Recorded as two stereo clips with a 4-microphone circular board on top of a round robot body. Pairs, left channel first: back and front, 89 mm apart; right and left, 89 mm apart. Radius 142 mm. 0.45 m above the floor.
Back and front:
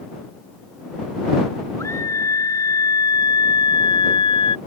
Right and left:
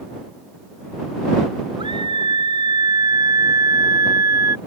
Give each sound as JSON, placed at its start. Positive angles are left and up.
{"t": 1.8, "sound": "a scream", "azimuth_deg": 120}